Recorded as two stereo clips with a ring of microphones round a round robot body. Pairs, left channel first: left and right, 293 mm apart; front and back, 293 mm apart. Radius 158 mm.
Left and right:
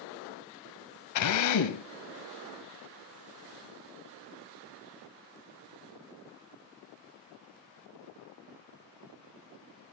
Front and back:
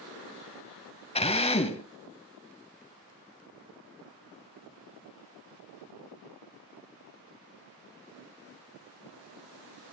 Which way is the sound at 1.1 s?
70° left.